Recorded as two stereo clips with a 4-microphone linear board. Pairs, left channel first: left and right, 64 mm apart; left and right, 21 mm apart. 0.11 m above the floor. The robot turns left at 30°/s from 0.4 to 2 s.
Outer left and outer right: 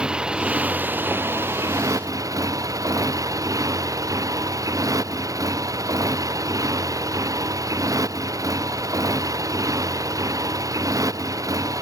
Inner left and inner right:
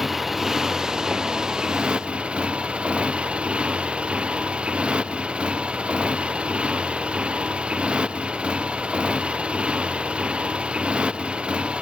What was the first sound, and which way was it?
A motorcycle, 15° right.